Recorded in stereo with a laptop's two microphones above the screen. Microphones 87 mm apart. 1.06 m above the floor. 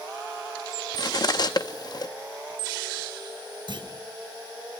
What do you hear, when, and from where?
0.9 s cutlery clinking: 50° left (ahead or behind), 0.8 m
3.7 s a clunk: 55° right (ahead or behind), 4.5 m